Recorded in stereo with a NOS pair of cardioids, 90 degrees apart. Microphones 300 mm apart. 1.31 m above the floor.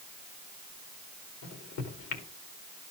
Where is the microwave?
70° left, 2.5 m.